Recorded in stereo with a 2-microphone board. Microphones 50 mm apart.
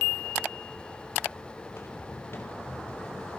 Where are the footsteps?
55° left (ahead or behind), 2.5 m; by 3.3 s 35° left (ahead or behind), 2.5 m.